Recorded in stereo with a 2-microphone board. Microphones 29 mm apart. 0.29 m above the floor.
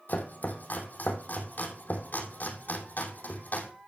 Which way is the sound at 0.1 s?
70° left (ahead or behind).